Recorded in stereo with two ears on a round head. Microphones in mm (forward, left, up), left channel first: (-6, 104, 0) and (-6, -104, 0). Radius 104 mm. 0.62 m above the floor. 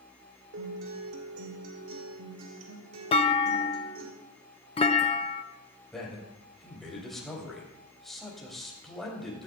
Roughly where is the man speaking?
Centre.